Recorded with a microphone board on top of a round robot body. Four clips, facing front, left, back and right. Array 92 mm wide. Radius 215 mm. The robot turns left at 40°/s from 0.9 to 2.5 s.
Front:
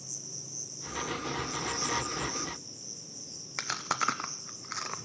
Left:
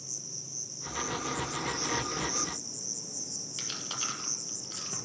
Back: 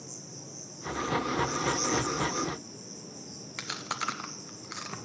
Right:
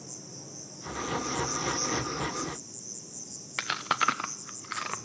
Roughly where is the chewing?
Right.